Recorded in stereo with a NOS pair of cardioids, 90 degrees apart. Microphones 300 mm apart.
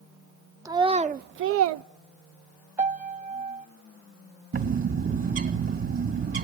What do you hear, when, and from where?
0.7 s a child speaking: 10° right, 0.7 m; by 1.9 s 80° right, 0.5 m
2.8 s a piano: 25° right, 1.1 m
4.5 s a bird: 50° right, 2 m